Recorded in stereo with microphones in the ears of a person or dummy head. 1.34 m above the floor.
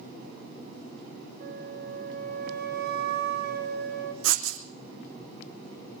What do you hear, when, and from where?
1.4 s a flute: 55° right (ahead or behind), 1.6 m
4.2 s writing: 80° right, 2.5 m